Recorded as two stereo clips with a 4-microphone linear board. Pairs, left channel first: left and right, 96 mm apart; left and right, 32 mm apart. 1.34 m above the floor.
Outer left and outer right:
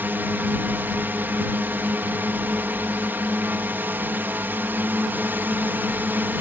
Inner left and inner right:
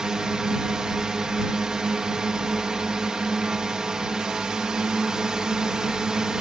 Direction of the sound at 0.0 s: 20° right (ahead or behind).